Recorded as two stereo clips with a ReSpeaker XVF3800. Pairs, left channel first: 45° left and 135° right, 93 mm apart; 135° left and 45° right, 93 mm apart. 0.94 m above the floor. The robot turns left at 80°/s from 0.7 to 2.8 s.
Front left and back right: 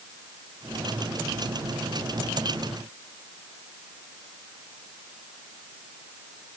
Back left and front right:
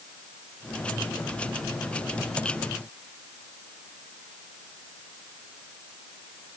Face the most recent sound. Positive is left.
No sound to turn to.